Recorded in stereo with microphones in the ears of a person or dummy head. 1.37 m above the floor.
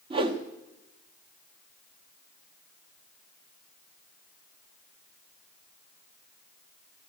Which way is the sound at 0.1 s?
30° right (ahead or behind).